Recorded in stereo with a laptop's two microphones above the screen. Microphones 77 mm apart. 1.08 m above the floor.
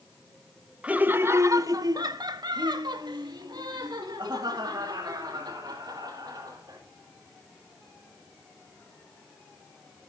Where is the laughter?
15° right (ahead or behind), 0.8 m; by 6.8 s 60° right (ahead or behind), 3.5 m.